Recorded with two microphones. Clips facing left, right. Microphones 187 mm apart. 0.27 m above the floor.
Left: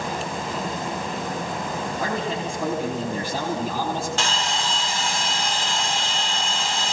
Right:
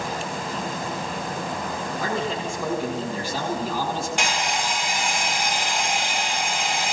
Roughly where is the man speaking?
Left.